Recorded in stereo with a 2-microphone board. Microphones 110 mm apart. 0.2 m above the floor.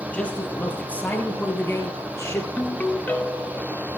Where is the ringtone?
15° left (ahead or behind), 1.4 m.